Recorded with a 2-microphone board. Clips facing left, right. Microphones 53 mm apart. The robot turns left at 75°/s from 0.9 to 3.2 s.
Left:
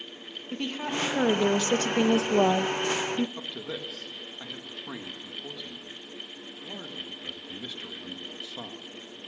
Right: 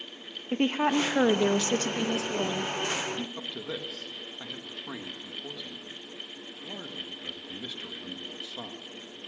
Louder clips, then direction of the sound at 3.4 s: Even; centre (ahead or behind).